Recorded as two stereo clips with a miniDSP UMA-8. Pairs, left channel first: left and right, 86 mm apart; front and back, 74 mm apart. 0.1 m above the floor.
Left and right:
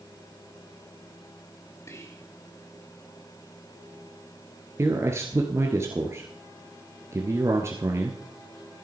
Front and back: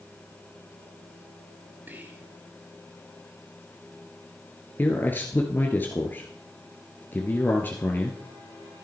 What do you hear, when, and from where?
1.9 s whispering: 125° left, 2.5 m
4.8 s a man speaking: 50° right, 1.4 m